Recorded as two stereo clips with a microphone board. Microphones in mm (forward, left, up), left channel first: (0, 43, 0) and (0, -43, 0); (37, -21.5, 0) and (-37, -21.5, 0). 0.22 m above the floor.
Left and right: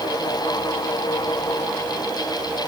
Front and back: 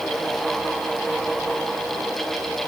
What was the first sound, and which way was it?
Only background noise.